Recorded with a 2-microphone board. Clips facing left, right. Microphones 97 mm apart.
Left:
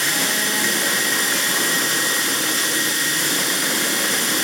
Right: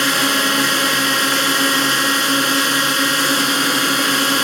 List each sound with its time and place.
0.0 s a drone: 65° right (ahead or behind)